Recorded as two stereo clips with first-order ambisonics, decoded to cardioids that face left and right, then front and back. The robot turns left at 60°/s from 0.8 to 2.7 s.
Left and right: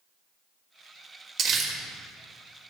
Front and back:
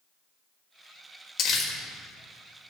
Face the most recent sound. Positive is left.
turn(degrees=-120)